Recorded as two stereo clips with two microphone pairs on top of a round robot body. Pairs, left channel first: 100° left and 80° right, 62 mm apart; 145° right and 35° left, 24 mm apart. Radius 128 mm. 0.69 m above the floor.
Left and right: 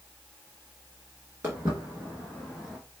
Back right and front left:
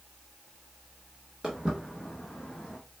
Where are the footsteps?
30° right, 0.8 m; by 2.8 s 170° right, 0.8 m.